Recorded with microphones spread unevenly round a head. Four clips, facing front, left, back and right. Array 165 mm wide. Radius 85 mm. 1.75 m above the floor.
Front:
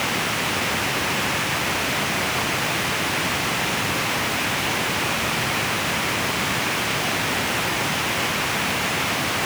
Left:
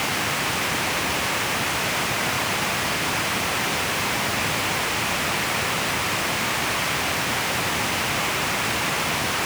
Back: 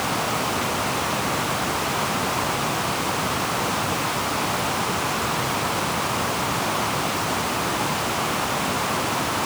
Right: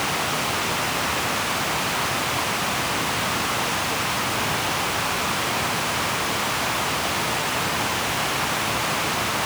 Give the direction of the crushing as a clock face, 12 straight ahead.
I don't hear crushing.